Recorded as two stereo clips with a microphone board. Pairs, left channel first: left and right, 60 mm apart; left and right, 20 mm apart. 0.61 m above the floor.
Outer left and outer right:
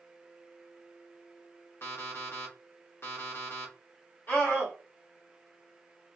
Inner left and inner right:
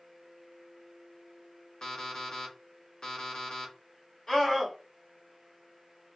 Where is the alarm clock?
40° left (ahead or behind), 1.0 m.